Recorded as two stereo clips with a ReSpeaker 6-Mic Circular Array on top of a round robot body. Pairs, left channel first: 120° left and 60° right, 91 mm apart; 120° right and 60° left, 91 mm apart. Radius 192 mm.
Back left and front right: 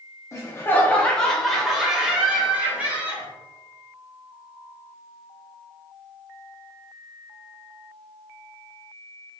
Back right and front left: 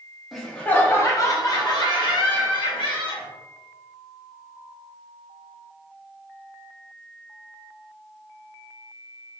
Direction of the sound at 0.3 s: 150° left.